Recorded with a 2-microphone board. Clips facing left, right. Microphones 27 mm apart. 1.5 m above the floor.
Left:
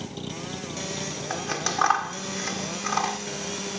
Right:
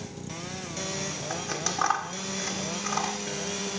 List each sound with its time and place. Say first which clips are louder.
0.0 s a vehicle: left 4 dB; 75° left (ahead or behind)
1.3 s scissors: left 4 dB; 20° left (ahead or behind)